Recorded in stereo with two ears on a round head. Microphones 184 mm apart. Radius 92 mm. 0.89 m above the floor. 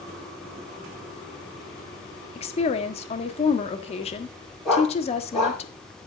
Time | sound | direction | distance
2.4 | a woman speaking | 30° left (ahead or behind) | 1.5 m
4.7 | a dog barking | centre (ahead or behind) | 5.5 m